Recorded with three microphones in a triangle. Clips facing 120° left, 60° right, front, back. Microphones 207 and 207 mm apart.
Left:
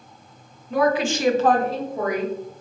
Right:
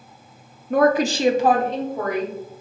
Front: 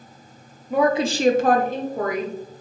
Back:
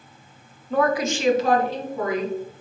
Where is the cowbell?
No cowbell in this recording.